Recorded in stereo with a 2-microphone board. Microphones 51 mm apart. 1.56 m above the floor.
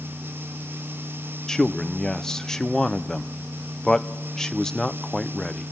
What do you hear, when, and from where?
1.5 s a man speaking: 10° left (ahead or behind), 0.6 m